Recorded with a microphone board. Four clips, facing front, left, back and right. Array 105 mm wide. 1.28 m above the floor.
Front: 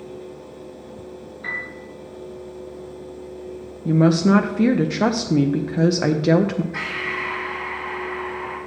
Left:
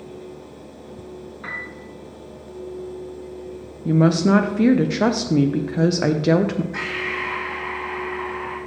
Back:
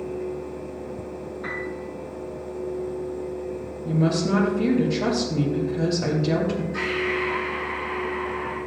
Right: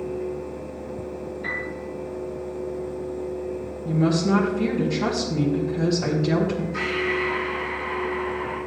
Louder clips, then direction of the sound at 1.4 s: Right 1 dB, back 1 dB; 110° left.